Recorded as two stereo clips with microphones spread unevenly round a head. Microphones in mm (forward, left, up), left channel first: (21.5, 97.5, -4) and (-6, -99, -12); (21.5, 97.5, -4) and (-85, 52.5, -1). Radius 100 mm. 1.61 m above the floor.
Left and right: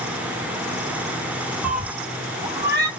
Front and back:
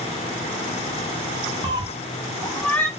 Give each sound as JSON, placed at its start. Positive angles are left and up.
{"t": 1.6, "sound": "a cat meowing", "azimuth_deg": 175, "distance_m": 1.4}